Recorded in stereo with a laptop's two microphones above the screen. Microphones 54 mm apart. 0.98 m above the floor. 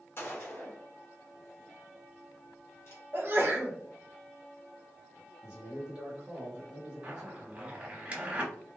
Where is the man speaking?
20° right (ahead or behind), 0.8 m.